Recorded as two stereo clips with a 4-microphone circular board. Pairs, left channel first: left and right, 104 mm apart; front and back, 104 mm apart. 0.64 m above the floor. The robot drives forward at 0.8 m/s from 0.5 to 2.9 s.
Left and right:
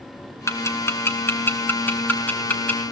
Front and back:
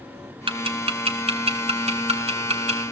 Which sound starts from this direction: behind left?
Ticking, at 0.5 s.